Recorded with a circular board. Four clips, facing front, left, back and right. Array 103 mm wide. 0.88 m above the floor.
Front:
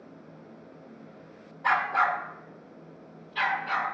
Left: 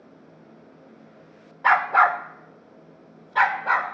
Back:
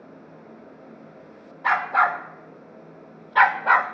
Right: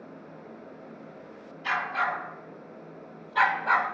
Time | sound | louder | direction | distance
1.6 | a dog barking | left 11 dB, back 4 dB | 100° left | 1.0 m